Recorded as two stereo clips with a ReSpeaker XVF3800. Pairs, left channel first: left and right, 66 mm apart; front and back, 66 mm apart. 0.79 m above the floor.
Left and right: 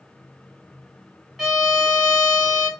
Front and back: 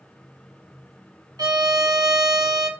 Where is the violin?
175° left, 1.6 m.